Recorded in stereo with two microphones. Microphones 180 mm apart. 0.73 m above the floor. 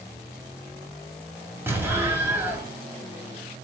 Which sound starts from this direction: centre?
An explosion, at 1.7 s.